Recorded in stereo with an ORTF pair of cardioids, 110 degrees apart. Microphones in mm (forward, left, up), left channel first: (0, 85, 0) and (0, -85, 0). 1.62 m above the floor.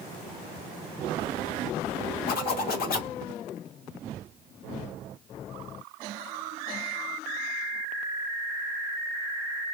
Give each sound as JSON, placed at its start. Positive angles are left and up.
{"t": 2.3, "sound": "a zipper", "azimuth_deg": 60, "distance_m": 0.9}